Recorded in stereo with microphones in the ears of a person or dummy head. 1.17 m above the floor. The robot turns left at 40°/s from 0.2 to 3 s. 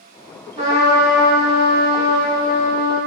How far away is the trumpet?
About 1.8 m.